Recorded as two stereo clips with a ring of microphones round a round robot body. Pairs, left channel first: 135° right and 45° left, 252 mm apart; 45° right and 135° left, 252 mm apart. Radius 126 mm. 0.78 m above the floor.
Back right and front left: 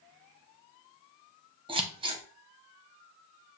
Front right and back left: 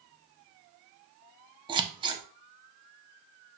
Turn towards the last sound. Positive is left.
turn(degrees=90)